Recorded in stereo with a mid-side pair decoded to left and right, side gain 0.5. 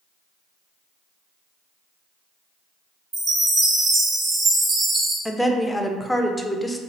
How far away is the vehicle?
I don't hear a vehicle.